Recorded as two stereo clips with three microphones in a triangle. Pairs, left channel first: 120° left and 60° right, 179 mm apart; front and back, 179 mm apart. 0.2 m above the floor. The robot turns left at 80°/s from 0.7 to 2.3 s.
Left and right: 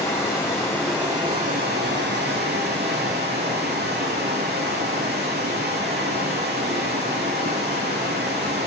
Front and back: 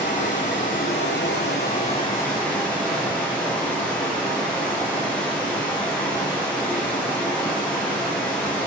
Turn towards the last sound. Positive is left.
turn(degrees=-85)